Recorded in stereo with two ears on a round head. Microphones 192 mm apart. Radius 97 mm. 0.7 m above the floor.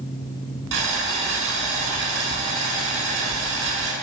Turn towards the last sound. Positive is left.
turn(degrees=-65)  # may be behind; listen again after turning